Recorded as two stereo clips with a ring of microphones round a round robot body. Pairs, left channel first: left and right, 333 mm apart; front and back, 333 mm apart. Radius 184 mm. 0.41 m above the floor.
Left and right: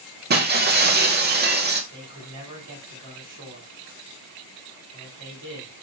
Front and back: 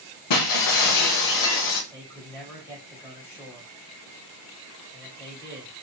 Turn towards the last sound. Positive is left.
turn(degrees=-80)